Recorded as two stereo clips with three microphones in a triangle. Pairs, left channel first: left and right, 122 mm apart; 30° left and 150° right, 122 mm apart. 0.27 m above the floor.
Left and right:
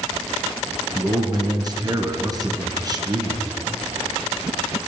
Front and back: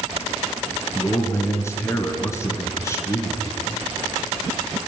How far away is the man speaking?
About 3.5 m.